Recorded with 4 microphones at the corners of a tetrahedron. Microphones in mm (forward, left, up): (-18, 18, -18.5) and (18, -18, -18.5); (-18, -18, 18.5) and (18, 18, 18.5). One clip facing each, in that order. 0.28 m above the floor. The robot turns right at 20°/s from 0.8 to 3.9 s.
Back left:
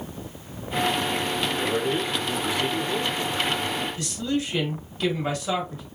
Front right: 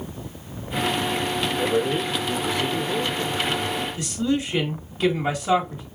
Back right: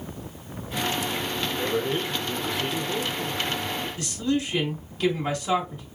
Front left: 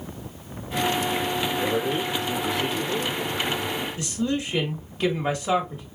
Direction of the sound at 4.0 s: 10° left.